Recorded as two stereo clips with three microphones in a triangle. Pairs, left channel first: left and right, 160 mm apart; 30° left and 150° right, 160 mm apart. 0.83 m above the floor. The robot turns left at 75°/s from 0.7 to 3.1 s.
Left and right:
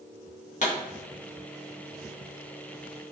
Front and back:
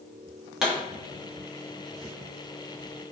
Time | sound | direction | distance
0.6 | a pop | 125° left | 1.3 m